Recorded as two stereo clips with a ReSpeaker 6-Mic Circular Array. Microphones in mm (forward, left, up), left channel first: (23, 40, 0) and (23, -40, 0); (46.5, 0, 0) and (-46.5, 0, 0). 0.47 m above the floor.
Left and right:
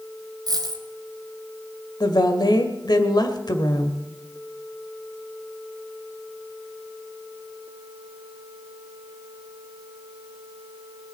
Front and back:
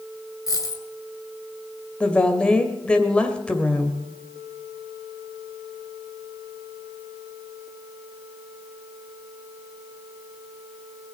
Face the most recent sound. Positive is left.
turn(degrees=75)